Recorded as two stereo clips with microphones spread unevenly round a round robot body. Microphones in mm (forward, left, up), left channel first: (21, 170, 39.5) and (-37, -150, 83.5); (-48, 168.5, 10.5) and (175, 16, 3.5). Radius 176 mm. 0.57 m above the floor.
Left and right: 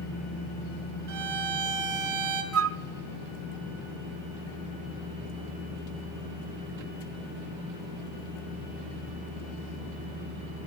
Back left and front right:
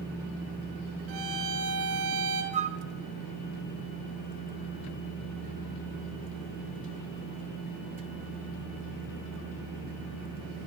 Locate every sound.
1.1 s a violin: 55° right, 1.4 m
2.5 s a flute: 75° right, 0.6 m